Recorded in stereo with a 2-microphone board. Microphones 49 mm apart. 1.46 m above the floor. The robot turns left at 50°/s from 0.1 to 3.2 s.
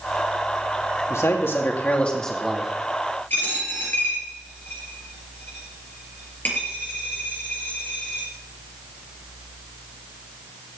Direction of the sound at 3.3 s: 40° left (ahead or behind).